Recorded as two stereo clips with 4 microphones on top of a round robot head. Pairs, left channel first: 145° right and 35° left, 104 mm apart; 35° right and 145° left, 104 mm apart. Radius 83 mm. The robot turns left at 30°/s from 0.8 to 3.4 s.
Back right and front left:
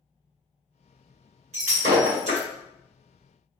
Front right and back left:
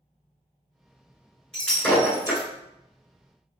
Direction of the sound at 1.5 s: 50° left.